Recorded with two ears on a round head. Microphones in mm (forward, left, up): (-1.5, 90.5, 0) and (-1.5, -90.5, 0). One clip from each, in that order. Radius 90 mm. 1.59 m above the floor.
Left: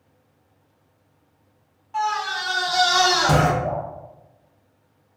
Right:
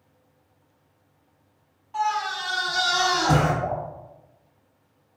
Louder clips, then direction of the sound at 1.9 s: Left 1 dB; centre (ahead or behind).